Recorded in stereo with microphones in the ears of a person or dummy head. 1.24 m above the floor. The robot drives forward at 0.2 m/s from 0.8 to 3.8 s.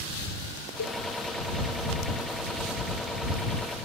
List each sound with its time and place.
0.8 s a cowbell: 75° left (ahead or behind), 0.5 m; by 0.9 s 70° left (ahead or behind), 0.5 m